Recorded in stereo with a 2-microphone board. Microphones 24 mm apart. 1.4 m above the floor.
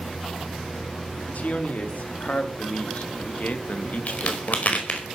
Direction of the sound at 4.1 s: 60° left (ahead or behind).